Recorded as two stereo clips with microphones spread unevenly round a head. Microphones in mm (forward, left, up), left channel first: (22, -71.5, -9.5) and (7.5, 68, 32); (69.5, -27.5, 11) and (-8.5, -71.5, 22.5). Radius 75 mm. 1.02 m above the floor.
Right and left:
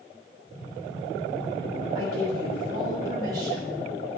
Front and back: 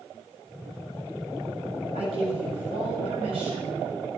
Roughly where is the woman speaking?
Behind.